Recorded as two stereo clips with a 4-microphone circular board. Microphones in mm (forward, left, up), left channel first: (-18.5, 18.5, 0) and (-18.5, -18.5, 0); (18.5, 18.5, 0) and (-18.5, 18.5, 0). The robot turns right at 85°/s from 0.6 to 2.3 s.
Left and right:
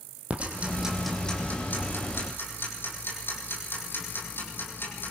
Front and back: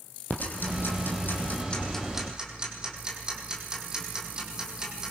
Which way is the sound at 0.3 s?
35° right.